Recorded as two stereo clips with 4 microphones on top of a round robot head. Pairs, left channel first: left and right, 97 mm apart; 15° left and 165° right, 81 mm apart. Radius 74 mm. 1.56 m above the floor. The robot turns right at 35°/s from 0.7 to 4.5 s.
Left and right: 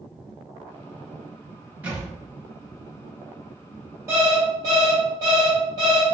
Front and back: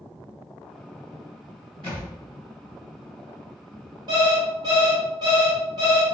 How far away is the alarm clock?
About 1.0 m.